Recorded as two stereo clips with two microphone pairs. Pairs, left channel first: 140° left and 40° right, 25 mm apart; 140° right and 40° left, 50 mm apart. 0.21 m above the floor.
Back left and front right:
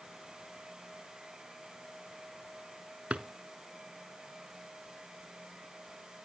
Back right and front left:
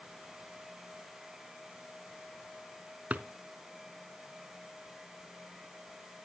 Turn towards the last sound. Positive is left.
turn(degrees=-20)